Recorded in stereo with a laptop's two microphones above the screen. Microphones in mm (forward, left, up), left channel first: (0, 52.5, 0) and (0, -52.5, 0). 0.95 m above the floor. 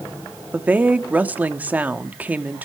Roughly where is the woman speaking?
Centre.